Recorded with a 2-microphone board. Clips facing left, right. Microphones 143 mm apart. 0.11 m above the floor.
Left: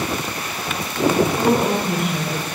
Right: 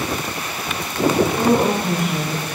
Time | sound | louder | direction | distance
1.2 | a woman speaking | right 2 dB | 40° right (ahead or behind) | 7 m